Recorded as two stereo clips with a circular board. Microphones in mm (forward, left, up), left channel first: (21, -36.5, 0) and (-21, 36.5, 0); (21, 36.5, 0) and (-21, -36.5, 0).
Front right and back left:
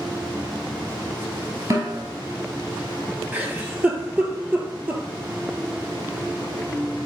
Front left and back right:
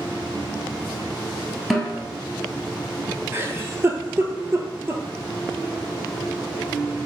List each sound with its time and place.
1.7 s a snare drum: 145° left, 1.3 m
3.3 s a giggle: 175° right, 0.7 m